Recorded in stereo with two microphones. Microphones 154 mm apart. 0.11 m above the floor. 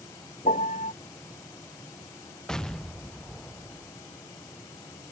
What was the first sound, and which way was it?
A piano, 55° left (ahead or behind).